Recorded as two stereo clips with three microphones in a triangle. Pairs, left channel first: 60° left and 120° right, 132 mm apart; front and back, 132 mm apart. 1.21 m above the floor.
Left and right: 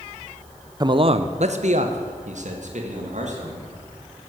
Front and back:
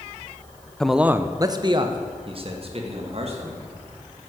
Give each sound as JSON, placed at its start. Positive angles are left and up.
{"t": 0.8, "sound": "a man speaking", "azimuth_deg": -80, "distance_m": 0.7}